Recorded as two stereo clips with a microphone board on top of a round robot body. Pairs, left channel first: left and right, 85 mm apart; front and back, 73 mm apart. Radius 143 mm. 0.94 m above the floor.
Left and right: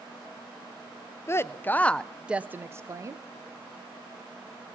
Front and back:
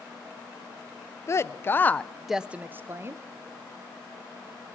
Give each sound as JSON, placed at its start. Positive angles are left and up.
{"t": 1.3, "sound": "a woman speaking", "azimuth_deg": 40, "distance_m": 0.7}